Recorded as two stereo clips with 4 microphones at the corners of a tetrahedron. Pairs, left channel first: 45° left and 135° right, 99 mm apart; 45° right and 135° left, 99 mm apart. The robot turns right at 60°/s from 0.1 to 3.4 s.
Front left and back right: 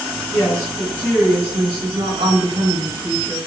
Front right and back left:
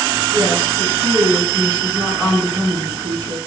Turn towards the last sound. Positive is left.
turn(degrees=-65)